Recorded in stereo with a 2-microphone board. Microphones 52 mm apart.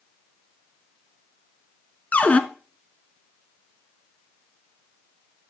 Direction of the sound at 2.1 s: 30° left (ahead or behind).